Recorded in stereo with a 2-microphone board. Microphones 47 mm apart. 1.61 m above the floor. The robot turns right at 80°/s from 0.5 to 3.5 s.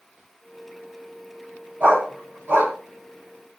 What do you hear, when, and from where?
1.8 s a dog barking: 50° right (ahead or behind), 2 m; by 2.7 s 40° right (ahead or behind), 2 m